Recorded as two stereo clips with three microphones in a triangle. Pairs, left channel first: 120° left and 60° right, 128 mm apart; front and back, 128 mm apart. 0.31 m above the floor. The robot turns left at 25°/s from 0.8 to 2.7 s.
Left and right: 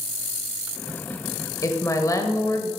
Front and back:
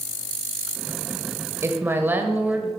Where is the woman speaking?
140° left, 1.1 m; by 2.7 s 115° left, 1.1 m.